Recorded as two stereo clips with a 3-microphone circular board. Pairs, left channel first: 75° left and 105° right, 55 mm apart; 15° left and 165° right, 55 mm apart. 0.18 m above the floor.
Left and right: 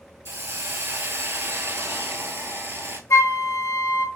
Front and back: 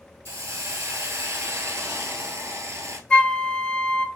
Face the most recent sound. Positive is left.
turn(degrees=90)